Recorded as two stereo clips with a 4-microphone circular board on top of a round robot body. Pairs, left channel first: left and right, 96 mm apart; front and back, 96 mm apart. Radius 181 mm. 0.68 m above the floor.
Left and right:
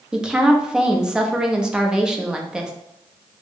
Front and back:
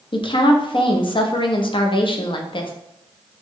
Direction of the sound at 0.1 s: 10° right.